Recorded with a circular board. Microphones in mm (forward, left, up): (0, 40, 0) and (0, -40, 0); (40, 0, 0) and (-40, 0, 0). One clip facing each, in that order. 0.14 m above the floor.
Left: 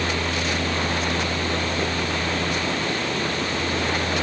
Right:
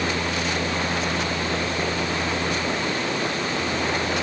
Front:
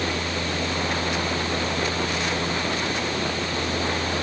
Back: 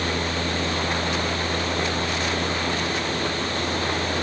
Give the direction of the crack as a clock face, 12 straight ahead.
I don't hear a crack.